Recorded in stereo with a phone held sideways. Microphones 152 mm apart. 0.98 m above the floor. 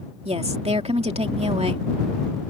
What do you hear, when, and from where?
0.2 s a woman speaking: 45° right (ahead or behind)